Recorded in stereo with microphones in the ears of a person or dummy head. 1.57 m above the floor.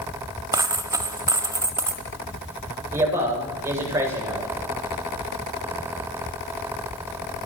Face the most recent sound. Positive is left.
turn(degrees=-15)  # may be behind; listen again after turning